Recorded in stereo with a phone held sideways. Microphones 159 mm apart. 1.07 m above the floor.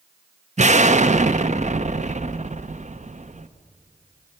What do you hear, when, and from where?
0.6 s an explosion: 50° right (ahead or behind), 0.8 m